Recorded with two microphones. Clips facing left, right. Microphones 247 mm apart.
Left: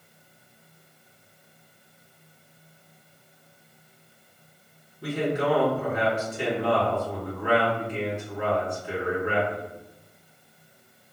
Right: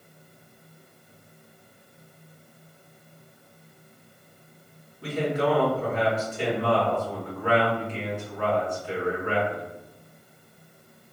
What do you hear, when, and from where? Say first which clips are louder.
5.0 s a man speaking: even; 15° left (ahead or behind), 1.6 m